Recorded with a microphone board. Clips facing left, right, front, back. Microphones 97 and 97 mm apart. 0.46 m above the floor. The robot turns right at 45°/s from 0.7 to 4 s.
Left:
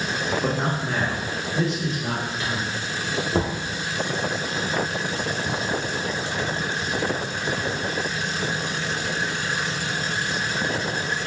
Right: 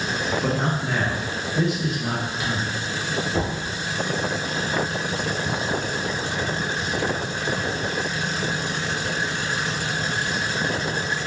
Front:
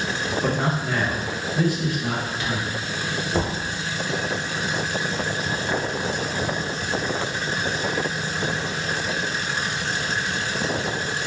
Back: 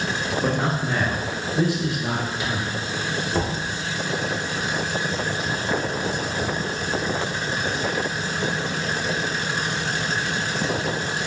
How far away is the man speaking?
About 0.7 m.